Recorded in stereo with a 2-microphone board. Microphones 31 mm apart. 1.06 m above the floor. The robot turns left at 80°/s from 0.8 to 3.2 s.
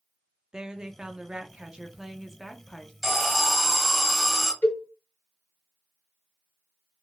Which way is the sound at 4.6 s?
65° left (ahead or behind).